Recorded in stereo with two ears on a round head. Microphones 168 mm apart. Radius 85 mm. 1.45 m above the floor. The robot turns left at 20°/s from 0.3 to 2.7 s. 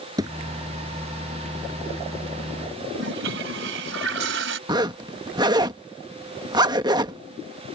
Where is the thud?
20° right (ahead or behind).